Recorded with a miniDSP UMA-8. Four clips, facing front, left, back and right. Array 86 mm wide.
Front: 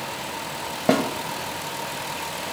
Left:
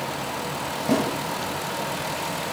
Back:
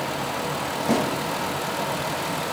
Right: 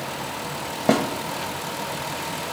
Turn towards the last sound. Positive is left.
turn(degrees=-50)